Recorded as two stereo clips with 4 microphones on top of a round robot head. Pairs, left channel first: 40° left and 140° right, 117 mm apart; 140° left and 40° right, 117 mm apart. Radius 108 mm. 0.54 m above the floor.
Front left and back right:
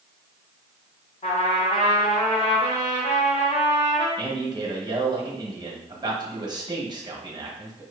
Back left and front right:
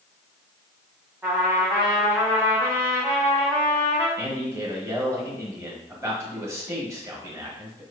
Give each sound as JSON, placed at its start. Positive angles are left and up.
{"t": 1.2, "sound": "a trumpet", "azimuth_deg": 25, "distance_m": 1.9}
{"t": 4.2, "sound": "a man speaking", "azimuth_deg": -100, "distance_m": 1.3}